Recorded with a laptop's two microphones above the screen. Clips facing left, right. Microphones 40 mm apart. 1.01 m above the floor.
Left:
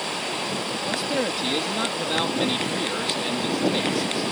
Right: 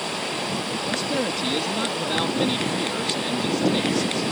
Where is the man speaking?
10° left (ahead or behind).